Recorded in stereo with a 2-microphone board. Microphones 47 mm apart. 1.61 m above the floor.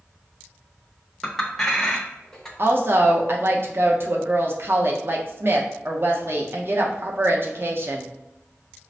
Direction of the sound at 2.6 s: 50° right (ahead or behind).